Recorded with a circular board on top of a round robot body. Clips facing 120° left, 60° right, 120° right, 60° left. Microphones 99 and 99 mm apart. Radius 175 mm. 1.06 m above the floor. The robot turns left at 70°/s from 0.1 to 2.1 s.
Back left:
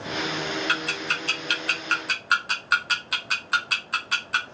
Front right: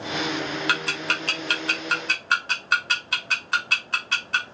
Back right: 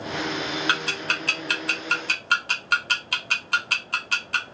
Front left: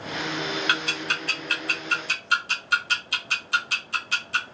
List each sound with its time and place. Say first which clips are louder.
0.7 s ticking: front right 2 dB, back right 1 dB; 55° right, 1.1 m; by 4.5 s 155° right, 1.1 m